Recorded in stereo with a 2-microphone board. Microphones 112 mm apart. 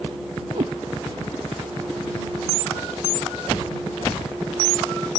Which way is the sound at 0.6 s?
90° right.